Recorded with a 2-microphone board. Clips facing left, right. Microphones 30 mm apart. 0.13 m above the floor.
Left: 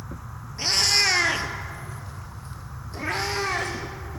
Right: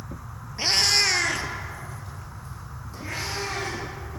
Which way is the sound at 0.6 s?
25° right (ahead or behind).